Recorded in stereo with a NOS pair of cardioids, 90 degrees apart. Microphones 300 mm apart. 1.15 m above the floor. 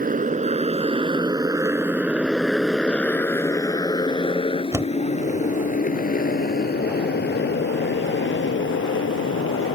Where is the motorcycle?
30° right; by 9.8 s 45° left.